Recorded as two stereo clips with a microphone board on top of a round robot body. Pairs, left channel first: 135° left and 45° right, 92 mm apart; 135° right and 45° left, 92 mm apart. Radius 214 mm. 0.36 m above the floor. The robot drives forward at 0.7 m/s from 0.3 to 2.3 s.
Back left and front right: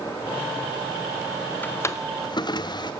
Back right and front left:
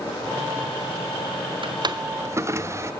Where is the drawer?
65° left, 0.9 m; by 2.9 s 100° left, 0.9 m.